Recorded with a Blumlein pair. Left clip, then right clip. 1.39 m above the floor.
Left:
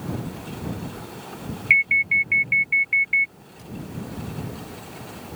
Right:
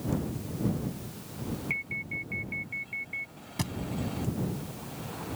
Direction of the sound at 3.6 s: 55° right.